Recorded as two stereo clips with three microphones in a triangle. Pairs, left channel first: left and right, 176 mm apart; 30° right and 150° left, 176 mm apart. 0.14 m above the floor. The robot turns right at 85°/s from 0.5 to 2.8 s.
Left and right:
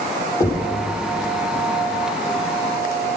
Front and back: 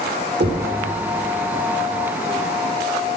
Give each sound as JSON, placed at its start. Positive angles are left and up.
{"t": 0.4, "sound": "knocking", "azimuth_deg": 165, "distance_m": 3.5}